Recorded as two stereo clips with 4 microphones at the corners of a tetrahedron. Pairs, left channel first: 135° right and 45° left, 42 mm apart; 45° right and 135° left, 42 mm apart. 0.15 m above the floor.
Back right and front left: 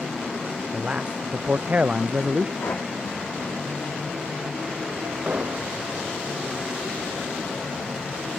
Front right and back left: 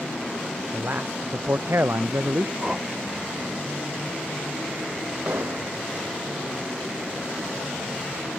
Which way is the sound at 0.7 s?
105° left.